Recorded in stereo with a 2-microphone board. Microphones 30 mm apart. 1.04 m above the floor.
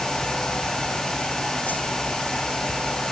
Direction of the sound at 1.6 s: 70° left (ahead or behind).